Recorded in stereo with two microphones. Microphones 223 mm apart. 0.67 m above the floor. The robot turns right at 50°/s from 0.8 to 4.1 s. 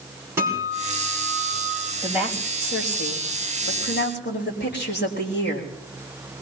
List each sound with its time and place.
0.4 s a guitar: 10° right, 4.5 m; by 1.9 s 45° left, 4.5 m
2.0 s a woman speaking: 20° left, 3.5 m; by 5.7 s 125° left, 3.5 m